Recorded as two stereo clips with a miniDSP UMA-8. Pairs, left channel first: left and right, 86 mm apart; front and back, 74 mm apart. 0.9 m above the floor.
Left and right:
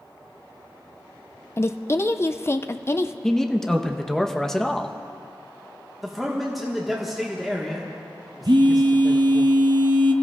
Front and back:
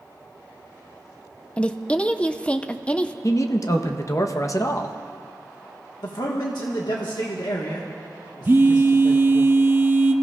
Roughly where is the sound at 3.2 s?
Ahead.